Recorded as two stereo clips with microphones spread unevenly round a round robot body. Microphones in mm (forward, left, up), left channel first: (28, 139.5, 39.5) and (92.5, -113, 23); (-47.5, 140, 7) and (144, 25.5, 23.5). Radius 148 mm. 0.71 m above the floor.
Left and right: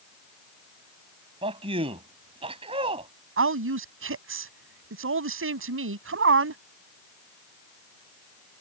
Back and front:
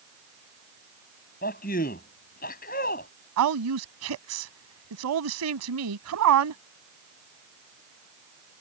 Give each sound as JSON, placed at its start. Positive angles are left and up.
{"t": 1.4, "sound": "a man speaking", "azimuth_deg": -150}
{"t": 3.4, "sound": "a woman speaking", "azimuth_deg": -35}